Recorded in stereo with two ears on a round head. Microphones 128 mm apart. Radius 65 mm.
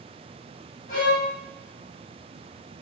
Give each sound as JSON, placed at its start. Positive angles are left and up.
{"t": 0.9, "sound": "a violin", "side_deg": 75, "distance_m": 6.0}